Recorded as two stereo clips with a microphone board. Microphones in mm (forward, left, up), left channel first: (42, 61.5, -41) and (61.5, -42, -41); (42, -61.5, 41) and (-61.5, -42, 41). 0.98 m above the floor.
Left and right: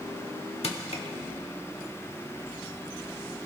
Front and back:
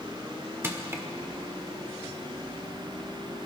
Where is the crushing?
105° left, 1.3 m.